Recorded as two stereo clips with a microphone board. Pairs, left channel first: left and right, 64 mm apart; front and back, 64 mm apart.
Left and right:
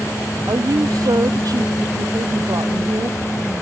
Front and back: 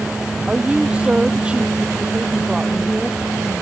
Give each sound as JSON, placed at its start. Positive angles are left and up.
{"t": 0.5, "sound": "a woman speaking", "azimuth_deg": -105}